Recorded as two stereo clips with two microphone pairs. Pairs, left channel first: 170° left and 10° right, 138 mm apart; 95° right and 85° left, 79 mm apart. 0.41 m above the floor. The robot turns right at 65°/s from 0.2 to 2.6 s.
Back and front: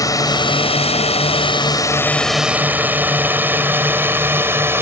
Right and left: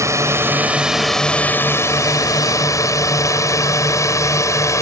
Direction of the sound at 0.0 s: 115° left.